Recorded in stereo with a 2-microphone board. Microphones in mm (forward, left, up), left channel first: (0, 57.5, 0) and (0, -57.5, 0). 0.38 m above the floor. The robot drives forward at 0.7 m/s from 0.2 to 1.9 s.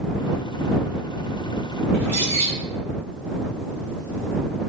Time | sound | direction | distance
1.9 | a bird | 20° right (ahead or behind) | 1.5 m